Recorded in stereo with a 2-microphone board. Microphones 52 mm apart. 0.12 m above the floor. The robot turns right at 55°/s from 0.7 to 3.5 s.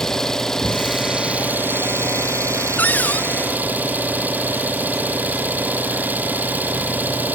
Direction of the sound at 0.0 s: 170° left.